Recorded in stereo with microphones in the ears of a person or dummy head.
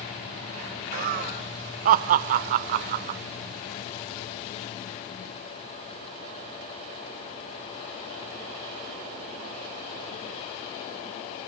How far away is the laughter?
About 0.6 m.